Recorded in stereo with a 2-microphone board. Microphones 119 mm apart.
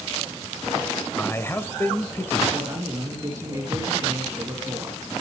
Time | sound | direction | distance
1.2 | a man speaking | 20° left (ahead or behind) | 0.9 m
2.5 | a man speaking | 30° right (ahead or behind) | 2.5 m